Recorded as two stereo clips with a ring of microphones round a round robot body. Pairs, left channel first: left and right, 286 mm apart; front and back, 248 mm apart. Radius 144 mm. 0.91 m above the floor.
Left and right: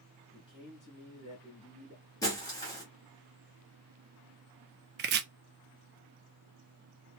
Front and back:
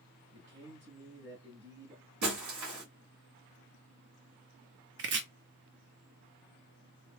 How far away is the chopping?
About 0.5 m.